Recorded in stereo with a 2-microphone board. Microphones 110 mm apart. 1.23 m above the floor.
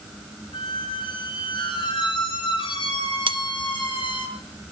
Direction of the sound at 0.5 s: 45° left (ahead or behind).